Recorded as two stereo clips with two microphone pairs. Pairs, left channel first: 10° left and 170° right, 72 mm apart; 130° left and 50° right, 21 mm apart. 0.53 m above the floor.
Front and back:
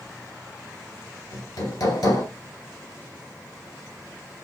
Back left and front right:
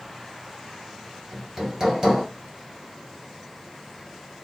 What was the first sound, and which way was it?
Hammering, 5° right.